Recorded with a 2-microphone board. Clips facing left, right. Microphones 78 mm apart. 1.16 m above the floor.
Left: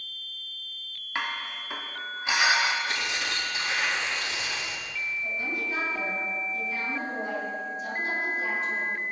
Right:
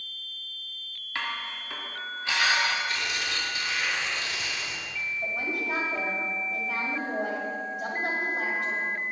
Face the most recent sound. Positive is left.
turn(degrees=-70)  # may be behind; listen again after turning